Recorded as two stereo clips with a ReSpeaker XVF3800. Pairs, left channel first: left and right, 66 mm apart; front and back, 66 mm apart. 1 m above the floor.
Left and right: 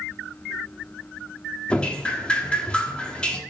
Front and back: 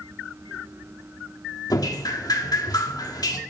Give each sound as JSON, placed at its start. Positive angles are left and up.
{"t": 1.7, "sound": "dripping", "azimuth_deg": 15, "distance_m": 1.5}